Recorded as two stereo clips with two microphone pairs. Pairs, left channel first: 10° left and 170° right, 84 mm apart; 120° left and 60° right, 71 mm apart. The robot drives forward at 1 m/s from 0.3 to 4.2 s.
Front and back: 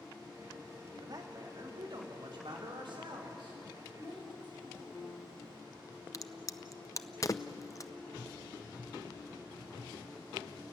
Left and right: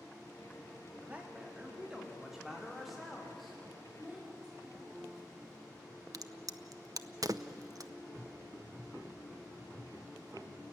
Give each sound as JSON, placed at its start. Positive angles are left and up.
{"t": 1.0, "sound": "a man speaking", "azimuth_deg": -130, "distance_m": 3.0}
{"t": 4.0, "sound": "a child speaking", "azimuth_deg": -140, "distance_m": 6.0}
{"t": 6.1, "sound": "a crack", "azimuth_deg": -35, "distance_m": 0.6}